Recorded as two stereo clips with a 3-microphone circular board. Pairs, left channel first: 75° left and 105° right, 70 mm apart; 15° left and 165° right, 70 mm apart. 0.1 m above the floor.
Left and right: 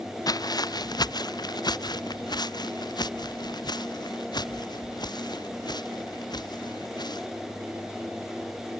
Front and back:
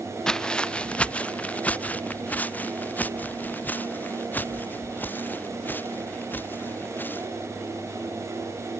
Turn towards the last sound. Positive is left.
turn(degrees=80)